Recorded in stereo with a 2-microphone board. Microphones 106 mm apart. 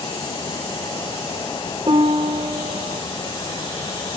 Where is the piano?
50° right (ahead or behind), 0.8 m.